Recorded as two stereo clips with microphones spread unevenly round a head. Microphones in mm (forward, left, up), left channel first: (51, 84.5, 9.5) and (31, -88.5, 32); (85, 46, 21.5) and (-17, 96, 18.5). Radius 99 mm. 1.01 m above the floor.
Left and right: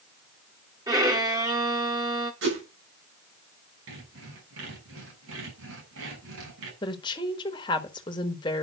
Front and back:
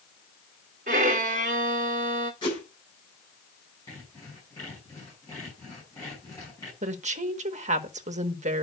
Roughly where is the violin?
Behind.